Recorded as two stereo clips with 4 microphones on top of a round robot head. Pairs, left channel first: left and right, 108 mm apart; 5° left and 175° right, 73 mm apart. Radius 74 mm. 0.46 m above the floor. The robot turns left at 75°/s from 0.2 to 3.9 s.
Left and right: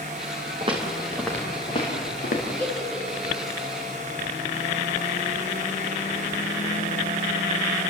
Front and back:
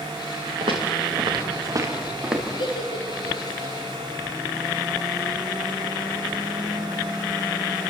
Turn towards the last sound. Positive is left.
turn(degrees=-80)